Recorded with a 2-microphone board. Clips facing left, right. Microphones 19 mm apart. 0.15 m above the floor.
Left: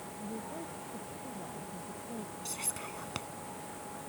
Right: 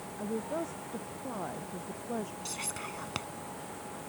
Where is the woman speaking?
70° right (ahead or behind).